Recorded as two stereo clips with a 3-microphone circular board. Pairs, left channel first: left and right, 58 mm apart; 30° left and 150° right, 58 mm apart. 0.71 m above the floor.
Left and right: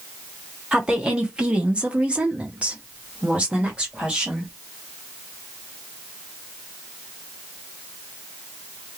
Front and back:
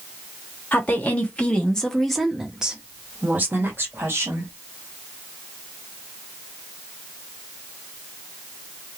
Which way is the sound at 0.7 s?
20° right.